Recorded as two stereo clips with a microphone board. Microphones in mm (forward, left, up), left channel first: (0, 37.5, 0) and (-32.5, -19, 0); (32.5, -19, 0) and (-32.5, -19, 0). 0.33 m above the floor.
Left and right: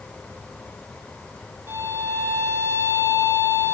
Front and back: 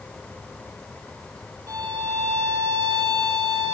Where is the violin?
165° right, 0.6 m.